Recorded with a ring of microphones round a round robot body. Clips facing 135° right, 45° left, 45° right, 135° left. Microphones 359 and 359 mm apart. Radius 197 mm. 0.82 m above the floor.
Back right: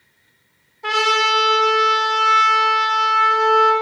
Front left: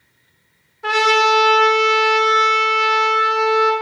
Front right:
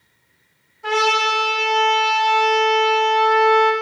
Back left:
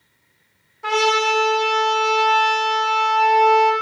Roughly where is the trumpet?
Behind left.